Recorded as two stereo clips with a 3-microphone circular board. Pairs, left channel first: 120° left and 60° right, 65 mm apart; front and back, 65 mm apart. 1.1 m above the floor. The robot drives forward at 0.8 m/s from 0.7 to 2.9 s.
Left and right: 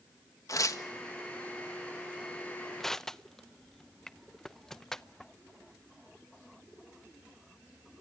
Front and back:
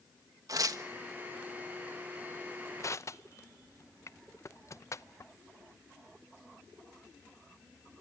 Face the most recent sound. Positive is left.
turn(degrees=35)